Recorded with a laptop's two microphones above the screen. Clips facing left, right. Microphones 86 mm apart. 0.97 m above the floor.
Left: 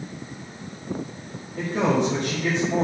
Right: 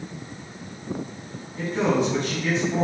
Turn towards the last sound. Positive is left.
turn(degrees=65)  # may be behind; listen again after turning